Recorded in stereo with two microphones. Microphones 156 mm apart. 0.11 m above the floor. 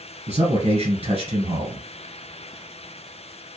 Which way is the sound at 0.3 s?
40° right (ahead or behind).